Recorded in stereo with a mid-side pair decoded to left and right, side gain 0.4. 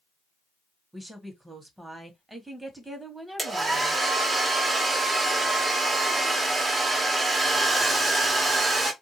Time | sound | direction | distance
0.9 | a woman speaking | 15° right | 1.5 m
3.4 | a hair dryer | 35° right | 1.5 m